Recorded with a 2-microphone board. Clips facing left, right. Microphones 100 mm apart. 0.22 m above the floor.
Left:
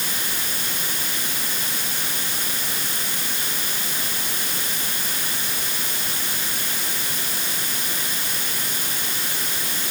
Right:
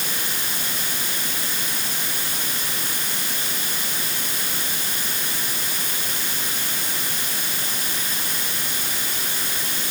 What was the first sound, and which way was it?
Only background noise.